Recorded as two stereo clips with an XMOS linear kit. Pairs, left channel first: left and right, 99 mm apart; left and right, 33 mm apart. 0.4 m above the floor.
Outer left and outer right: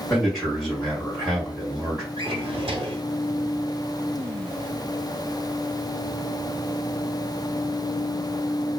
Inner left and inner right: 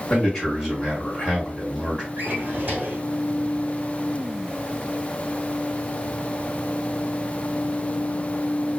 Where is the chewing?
No chewing in this recording.